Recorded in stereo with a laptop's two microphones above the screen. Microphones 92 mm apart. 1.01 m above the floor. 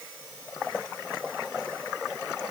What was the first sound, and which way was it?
Only background noise.